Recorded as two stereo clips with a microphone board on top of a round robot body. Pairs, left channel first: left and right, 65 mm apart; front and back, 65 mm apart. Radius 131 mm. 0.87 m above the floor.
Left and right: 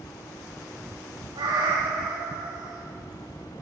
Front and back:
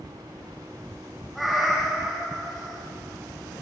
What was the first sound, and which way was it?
A cat meowing, 90° right.